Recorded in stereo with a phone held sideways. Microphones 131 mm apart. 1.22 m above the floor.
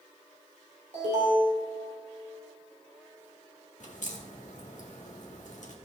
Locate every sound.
0.9 s an alarm: 70° right (ahead or behind), 3 m
3.8 s a crack: 70° left (ahead or behind), 1.3 m